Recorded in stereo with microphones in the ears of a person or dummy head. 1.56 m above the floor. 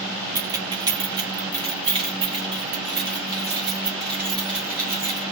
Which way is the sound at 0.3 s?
15° right (ahead or behind).